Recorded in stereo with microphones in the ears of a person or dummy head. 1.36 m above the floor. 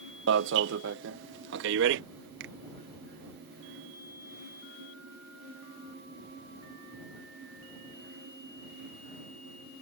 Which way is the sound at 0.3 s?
60° right (ahead or behind).